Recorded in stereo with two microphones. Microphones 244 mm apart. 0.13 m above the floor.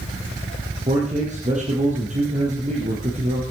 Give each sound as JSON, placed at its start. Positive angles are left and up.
{"t": 0.9, "sound": "a man speaking", "side_deg": -30, "distance_m": 4.5}